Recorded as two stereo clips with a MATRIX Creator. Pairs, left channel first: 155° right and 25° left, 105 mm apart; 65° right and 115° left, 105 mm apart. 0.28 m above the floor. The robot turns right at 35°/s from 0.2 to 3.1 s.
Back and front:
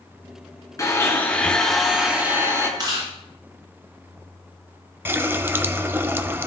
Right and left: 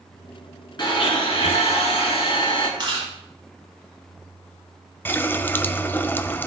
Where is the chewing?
70° left, 7 m; by 3.1 s 80° left, 7 m.